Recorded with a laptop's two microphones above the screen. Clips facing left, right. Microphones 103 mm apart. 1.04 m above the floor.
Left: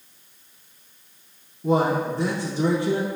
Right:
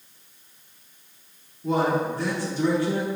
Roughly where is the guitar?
I don't hear a guitar.